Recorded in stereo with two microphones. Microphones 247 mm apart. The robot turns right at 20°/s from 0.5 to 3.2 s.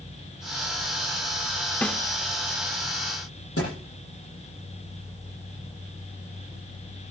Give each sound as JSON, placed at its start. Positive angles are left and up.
{"t": 1.8, "sound": "a snare drum", "side_deg": 5, "distance_m": 0.9}
{"t": 3.6, "sound": "a thud", "side_deg": 65, "distance_m": 9.0}